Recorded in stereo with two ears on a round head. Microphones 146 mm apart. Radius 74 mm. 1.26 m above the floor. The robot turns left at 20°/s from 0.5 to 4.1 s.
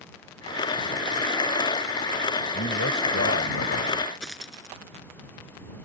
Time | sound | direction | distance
2.5 | a man speaking | 90° left | ?
4.2 | a dropped coin | 5° left (ahead or behind) | ?